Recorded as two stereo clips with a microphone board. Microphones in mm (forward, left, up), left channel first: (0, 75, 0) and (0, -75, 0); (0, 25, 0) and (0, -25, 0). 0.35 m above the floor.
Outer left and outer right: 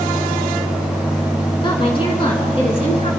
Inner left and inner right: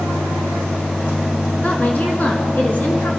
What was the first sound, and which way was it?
A woman speaking, 35° left (ahead or behind).